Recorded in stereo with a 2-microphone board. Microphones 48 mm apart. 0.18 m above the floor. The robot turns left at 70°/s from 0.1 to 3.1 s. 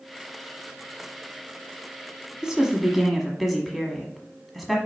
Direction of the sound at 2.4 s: 15° right (ahead or behind).